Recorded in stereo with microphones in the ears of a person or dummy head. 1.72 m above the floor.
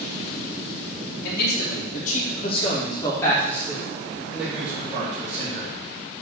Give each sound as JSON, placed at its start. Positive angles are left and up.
{"t": 1.2, "sound": "a man speaking", "side_deg": 75, "distance_m": 2.5}